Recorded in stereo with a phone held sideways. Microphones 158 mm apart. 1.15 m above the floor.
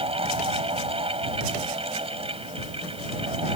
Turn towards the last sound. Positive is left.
turn(degrees=-40)  # may be behind; listen again after turning